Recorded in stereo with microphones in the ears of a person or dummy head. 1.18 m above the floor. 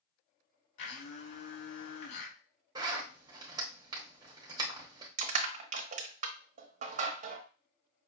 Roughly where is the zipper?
Right.